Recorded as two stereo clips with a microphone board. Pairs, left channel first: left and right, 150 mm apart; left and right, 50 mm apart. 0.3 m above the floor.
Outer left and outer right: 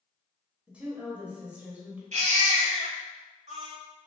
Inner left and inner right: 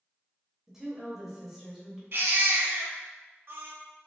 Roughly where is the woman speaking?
Centre.